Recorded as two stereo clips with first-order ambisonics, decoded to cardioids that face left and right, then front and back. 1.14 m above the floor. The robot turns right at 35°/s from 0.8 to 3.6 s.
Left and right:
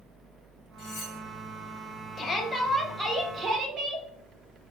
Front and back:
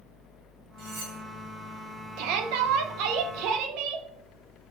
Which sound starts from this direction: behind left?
Cutlery clinking, at 0.8 s.